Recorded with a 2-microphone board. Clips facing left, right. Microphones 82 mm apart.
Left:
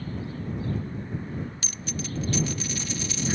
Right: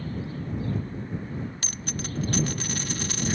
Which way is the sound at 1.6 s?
50° right (ahead or behind).